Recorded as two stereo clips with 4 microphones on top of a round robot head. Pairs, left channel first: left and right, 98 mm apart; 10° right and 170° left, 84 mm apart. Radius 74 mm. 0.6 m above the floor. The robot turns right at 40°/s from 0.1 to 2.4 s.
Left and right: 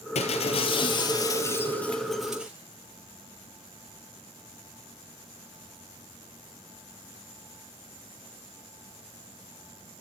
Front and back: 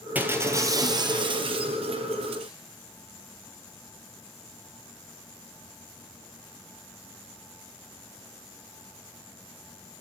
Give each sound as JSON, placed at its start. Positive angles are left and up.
{"t": 0.1, "sound": "breaking glass", "azimuth_deg": 95, "distance_m": 3.5}